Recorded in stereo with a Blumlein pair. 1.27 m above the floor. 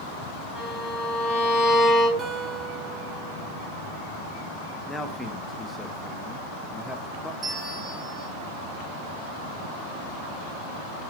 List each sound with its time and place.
0.6 s a violin: 15° left, 6 m
2.2 s a guitar: 20° right, 2 m
4.9 s a man speaking: 5° left, 1.1 m
7.4 s a bell: 15° right, 2.5 m